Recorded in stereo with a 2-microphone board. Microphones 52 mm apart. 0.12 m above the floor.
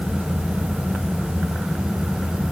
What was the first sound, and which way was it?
Only background noise.